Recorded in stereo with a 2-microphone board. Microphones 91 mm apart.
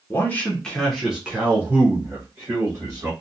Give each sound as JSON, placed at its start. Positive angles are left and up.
{"t": 0.1, "sound": "a man speaking", "side_deg": 25, "distance_m": 0.8}